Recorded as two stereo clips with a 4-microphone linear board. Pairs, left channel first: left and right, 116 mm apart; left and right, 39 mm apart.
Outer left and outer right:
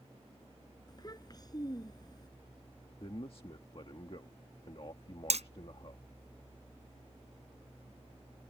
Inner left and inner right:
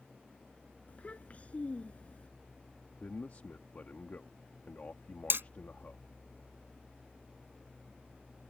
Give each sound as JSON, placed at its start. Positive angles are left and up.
{"t": 0.9, "sound": "a child speaking", "side_deg": 35}
{"t": 3.0, "sound": "a man speaking", "side_deg": 50}
{"t": 5.3, "sound": "hammering", "side_deg": -75}